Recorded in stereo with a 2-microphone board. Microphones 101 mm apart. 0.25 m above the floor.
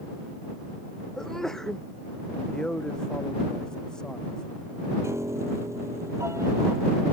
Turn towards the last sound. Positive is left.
turn(degrees=-30)  # may be behind; listen again after turning